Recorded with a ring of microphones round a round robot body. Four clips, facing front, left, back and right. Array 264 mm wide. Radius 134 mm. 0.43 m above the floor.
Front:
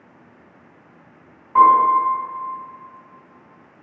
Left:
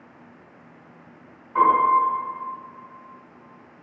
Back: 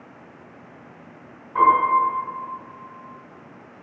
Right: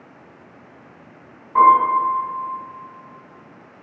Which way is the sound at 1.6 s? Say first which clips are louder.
Right 4 dB, front 4 dB; 30° right.